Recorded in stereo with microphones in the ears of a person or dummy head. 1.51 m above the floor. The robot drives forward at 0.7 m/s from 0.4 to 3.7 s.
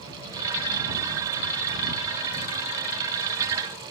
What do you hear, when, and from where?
Only background noise.